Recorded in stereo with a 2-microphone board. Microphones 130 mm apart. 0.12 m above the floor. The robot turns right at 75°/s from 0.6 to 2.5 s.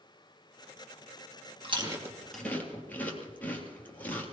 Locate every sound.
1.6 s chewing: 45° right (ahead or behind), 3 m; by 4.3 s 15° left (ahead or behind), 3 m